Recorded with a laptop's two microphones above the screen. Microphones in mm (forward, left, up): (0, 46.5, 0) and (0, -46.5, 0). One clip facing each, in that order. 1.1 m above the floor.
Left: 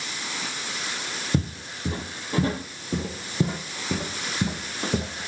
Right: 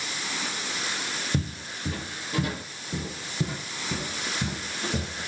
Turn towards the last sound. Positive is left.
turn(degrees=45)  # may be behind; listen again after turning